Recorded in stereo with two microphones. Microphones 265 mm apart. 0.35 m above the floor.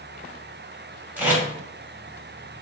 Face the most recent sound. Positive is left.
turn(degrees=-5)  # may be behind; listen again after turning